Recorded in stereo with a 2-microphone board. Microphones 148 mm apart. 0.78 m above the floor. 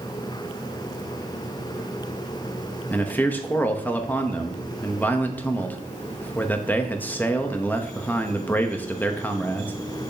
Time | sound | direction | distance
2.9 | a man speaking | 10° left (ahead or behind) | 0.9 m